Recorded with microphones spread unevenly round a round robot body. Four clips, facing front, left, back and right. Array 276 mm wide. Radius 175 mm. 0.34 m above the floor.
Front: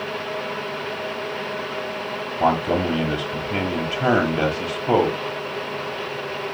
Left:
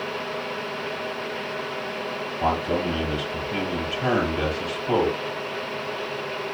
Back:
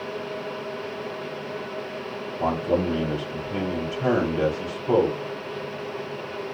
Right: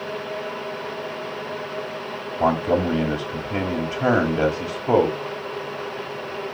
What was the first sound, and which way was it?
A man speaking, 40° right.